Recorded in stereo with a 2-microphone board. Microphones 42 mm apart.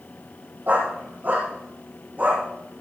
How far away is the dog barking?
About 4.5 m.